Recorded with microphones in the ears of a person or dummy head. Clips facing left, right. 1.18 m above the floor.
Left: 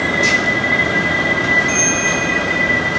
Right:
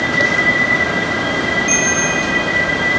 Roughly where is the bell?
Right.